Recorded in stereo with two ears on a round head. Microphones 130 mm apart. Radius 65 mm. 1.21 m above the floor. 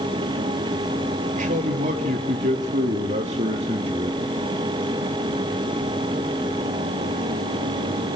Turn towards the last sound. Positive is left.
turn(degrees=-35)  # may be behind; listen again after turning